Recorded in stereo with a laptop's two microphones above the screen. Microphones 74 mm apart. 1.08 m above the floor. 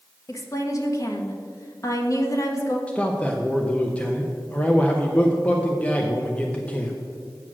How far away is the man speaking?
About 0.5 m.